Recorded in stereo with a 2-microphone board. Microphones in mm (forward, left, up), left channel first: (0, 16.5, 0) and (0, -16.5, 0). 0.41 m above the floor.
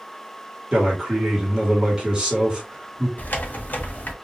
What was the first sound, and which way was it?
A man speaking, 25° right (ahead or behind).